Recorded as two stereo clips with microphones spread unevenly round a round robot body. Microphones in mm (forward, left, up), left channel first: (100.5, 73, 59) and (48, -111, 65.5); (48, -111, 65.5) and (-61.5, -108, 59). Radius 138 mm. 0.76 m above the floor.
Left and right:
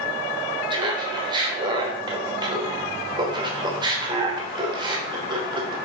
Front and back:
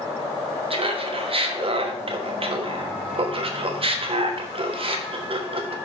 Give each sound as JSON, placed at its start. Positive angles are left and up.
{"t": 0.7, "sound": "laughter", "azimuth_deg": -170, "distance_m": 1.2}